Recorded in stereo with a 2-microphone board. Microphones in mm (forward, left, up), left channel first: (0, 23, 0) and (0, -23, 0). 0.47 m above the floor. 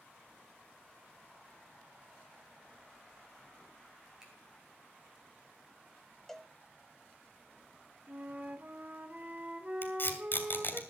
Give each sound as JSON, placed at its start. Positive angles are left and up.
{"t": 4.2, "sound": "a finger snap", "side_deg": -15, "distance_m": 3.5}
{"t": 6.3, "sound": "a cowbell", "side_deg": 5, "distance_m": 0.7}
{"t": 8.1, "sound": "a flute", "side_deg": -40, "distance_m": 1.0}
{"t": 9.8, "sound": "tape being pulled", "side_deg": 50, "distance_m": 1.9}